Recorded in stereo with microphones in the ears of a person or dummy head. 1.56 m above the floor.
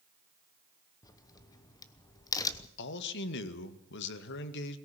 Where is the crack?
20° left (ahead or behind), 1.1 m.